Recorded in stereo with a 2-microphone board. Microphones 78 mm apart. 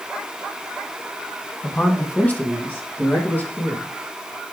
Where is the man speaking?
20° left (ahead or behind), 1.6 m; by 3.9 s 25° left (ahead or behind), 2.5 m.